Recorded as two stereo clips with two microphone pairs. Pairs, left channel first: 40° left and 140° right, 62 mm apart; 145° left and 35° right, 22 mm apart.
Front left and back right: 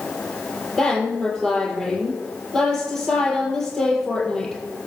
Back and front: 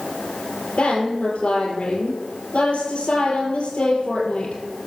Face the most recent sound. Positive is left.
turn(degrees=125)